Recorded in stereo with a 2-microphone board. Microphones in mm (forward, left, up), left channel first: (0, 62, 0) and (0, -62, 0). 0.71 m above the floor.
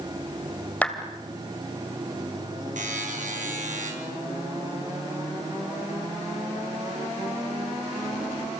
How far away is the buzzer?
About 5.5 m.